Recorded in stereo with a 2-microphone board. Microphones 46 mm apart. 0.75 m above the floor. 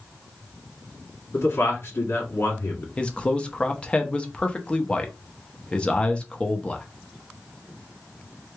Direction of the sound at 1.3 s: 60° left (ahead or behind).